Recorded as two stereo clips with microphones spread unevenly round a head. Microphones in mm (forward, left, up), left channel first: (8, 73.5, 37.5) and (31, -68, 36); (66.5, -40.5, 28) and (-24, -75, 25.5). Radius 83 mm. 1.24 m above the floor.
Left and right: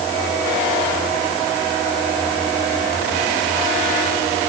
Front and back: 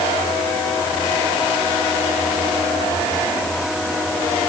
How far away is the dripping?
No dripping in this recording.